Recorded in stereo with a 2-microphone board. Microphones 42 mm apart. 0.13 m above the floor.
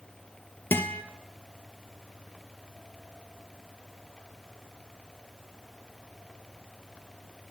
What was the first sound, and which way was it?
A guitar, 70° left (ahead or behind).